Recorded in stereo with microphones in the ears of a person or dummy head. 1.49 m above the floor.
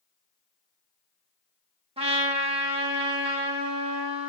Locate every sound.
2.0 s a trumpet: 30° right (ahead or behind), 1.7 m